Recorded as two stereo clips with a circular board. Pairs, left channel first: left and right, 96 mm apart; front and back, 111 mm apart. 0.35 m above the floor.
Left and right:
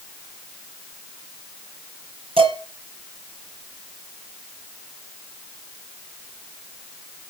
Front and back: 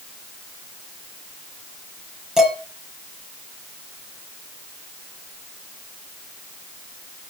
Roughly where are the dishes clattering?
Right.